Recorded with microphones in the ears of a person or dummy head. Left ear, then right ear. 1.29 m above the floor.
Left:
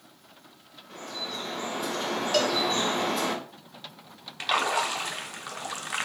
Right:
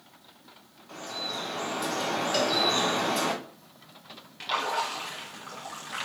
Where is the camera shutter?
I don't hear a camera shutter.